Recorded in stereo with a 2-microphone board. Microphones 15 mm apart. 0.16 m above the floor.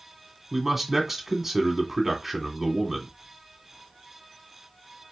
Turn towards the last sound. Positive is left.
turn(degrees=-20)  # may be behind; listen again after turning